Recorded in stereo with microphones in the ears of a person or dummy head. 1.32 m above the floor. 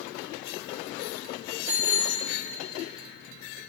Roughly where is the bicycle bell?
Centre.